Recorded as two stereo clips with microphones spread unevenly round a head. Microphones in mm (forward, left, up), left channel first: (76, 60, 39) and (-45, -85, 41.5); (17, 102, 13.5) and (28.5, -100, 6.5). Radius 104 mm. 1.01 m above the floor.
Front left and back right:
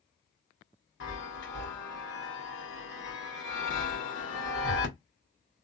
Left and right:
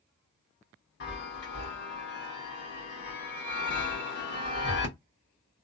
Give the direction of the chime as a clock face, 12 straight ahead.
10 o'clock.